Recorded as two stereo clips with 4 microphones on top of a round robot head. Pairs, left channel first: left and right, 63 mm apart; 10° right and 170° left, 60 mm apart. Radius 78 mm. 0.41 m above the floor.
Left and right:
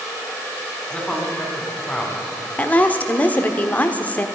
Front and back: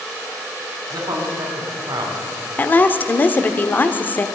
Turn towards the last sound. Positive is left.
turn(degrees=35)